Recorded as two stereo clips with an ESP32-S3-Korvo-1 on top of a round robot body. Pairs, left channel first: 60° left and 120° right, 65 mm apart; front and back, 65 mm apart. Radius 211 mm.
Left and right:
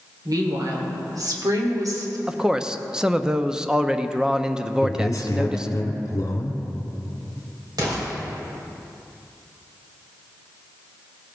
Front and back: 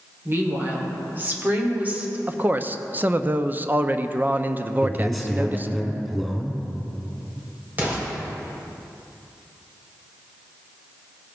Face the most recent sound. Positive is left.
turn(degrees=-120)